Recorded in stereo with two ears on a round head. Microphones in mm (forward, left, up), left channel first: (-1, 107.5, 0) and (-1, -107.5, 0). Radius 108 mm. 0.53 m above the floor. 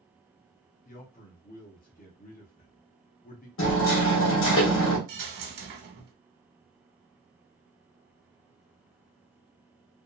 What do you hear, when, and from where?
0.8 s a man speaking: 35° left (ahead or behind), 0.7 m
3.6 s hammering: 55° left (ahead or behind), 1.1 m
5.1 s a dropped coin: 45° right (ahead or behind), 0.8 m